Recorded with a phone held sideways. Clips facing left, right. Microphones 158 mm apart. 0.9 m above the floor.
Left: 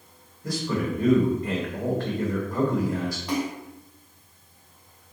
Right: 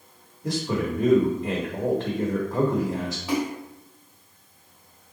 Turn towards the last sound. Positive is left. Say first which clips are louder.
# right 3 dB
turn(degrees=-5)  # may be behind; listen again after turning